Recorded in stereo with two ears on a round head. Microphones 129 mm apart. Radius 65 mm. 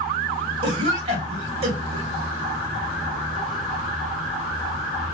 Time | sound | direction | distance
0.6 | a cough | 40° right (ahead or behind) | 2.5 m